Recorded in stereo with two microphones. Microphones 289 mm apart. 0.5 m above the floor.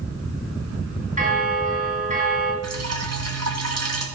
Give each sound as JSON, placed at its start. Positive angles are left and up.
{"t": 1.2, "sound": "a bell", "side_deg": -30, "distance_m": 4.0}
{"t": 2.6, "sound": "dripping", "side_deg": -60, "distance_m": 3.0}